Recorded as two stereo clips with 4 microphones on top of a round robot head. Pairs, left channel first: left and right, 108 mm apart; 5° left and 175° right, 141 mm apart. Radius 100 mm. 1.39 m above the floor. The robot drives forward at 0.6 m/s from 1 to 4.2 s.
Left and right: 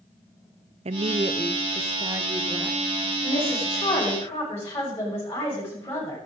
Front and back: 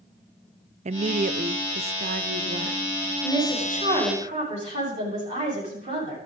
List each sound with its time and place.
0.8 s a woman speaking: 130° right, 0.5 m; by 2.8 s 165° right, 1.4 m
3.2 s a woman speaking: 145° left, 8.5 m